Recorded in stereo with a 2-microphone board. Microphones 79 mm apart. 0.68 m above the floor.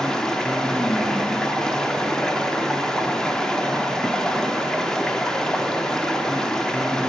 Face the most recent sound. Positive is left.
turn(degrees=5)  # may be behind; listen again after turning